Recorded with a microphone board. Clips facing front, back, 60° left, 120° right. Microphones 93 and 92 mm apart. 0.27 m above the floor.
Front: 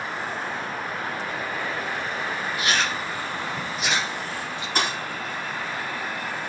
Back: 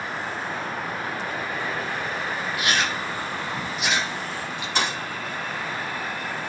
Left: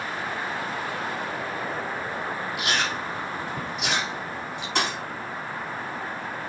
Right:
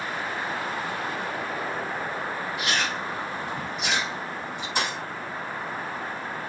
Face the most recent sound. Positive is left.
turn(degrees=45)